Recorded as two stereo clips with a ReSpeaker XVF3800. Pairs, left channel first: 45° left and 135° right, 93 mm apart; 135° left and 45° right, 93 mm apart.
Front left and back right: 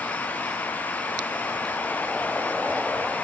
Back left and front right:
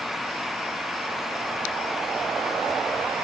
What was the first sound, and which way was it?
Only background noise.